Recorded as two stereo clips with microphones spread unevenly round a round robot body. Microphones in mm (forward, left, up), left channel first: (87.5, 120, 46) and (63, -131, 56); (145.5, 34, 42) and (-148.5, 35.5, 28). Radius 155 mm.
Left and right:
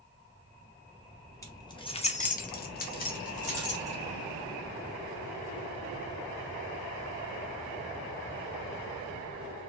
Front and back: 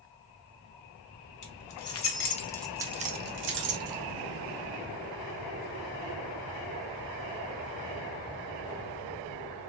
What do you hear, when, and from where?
1.4 s keys jangling: 10° left, 0.8 m; by 4.0 s 150° left, 1.0 m